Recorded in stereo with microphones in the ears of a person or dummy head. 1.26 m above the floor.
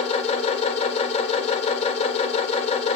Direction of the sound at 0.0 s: 30° left (ahead or behind).